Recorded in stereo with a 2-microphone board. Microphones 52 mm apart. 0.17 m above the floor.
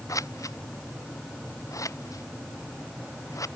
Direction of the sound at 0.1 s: 85° left.